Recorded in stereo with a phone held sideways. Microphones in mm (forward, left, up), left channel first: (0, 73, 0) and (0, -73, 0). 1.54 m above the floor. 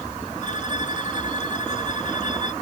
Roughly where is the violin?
Left.